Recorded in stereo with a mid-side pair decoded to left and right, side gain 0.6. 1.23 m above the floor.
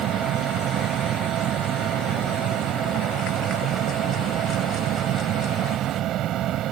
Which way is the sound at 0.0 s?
60° right.